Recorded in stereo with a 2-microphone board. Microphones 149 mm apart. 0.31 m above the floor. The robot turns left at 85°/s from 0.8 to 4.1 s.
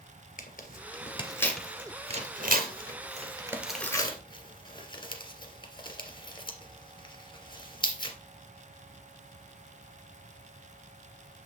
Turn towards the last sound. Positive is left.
turn(degrees=30)  # may be behind; listen again after turning